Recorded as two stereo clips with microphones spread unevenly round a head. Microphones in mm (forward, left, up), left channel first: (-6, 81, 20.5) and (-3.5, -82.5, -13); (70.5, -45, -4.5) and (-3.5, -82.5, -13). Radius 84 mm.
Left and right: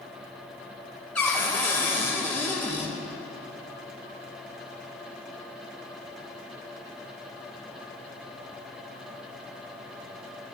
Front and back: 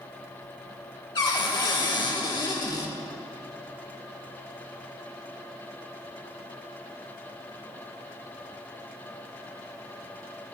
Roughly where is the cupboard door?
Ahead.